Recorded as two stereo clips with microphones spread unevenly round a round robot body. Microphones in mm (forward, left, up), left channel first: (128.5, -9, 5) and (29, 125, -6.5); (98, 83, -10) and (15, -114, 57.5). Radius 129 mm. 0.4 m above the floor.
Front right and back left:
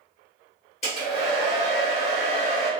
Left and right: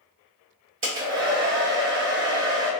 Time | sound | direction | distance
0.8 | a hair dryer | 95° right | 1.4 m